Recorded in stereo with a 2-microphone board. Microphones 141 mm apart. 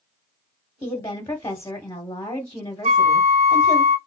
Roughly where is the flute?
Right.